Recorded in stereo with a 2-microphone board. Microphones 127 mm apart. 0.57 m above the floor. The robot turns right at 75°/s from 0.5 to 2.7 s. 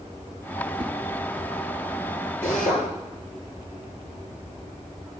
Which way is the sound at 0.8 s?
40° right (ahead or behind).